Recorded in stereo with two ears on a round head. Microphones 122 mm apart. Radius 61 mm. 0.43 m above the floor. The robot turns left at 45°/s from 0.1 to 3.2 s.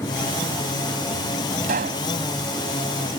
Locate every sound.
1.6 s a pop: 65° right (ahead or behind); by 2.1 s 70° right (ahead or behind)